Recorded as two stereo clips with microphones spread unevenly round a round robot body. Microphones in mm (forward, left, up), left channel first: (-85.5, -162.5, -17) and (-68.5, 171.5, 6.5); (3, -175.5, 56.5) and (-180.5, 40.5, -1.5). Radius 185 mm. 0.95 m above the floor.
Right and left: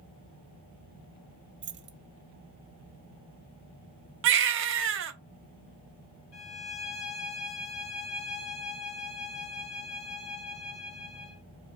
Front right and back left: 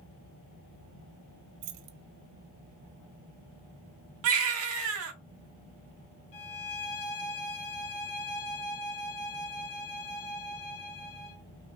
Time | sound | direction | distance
1.6 | keys jangling | 145° left | 0.6 m
4.2 | a baby crying | 95° left | 0.5 m
6.3 | a violin | 40° right | 1.3 m